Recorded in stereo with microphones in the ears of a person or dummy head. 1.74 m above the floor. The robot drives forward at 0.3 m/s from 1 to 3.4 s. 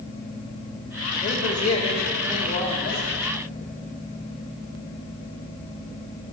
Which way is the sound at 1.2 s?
40° left (ahead or behind).